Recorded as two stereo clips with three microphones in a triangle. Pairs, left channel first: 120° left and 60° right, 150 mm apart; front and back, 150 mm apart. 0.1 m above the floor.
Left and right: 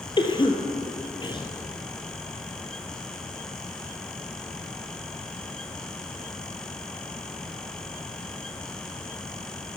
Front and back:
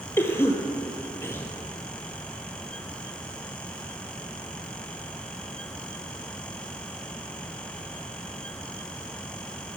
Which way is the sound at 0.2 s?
70° left.